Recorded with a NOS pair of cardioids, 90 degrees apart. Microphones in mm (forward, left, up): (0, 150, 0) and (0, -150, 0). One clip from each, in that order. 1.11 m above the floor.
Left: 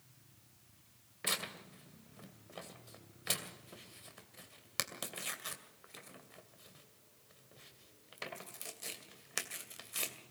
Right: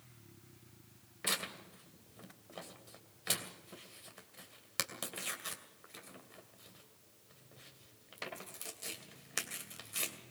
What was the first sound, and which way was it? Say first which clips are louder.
Tearing paper: right 1 dB; 5° left.